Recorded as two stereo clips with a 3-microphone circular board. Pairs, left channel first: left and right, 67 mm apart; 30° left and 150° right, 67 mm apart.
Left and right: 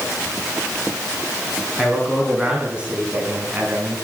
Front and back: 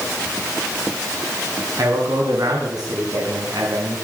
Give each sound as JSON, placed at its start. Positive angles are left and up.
{"t": 1.8, "sound": "a man speaking", "azimuth_deg": -175, "distance_m": 4.5}